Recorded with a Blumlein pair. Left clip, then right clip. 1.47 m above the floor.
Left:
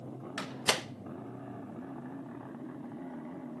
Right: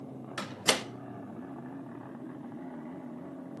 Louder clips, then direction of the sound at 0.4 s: Right 2 dB; 5° right.